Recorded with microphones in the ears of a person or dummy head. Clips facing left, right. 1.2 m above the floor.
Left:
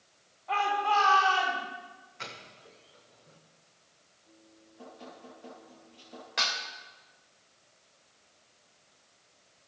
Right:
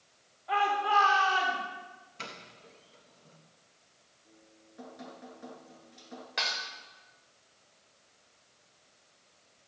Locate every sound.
0.5 s a shout: 20° right (ahead or behind), 4.5 m; by 1.6 s 30° right (ahead or behind), 4.5 m
2.2 s a doorbell: 50° right (ahead or behind), 3 m
4.2 s dripping: 80° right, 7.5 m
6.4 s dishes clattering: 10° right (ahead or behind), 3 m